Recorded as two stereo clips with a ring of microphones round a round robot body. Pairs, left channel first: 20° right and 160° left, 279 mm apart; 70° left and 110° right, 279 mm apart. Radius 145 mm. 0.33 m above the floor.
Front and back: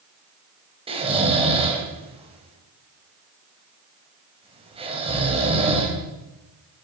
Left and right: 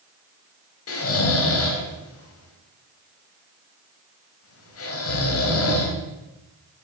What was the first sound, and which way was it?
Snoring, 90° left.